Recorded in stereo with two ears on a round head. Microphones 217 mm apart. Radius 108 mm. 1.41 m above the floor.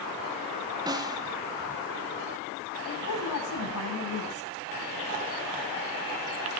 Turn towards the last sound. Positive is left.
turn(degrees=70)  # may be behind; listen again after turning